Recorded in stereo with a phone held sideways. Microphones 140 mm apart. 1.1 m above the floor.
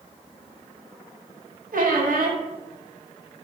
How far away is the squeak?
About 0.7 m.